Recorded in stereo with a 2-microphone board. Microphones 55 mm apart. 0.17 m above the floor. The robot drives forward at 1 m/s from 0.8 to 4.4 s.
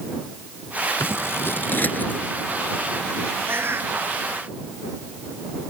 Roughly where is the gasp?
I don't hear a gasp.